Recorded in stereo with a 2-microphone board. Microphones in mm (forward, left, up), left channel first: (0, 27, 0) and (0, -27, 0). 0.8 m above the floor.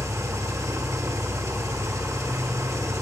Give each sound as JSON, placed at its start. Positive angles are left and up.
{"t": 0.0, "sound": "an engine running", "side_deg": -75, "distance_m": 1.4}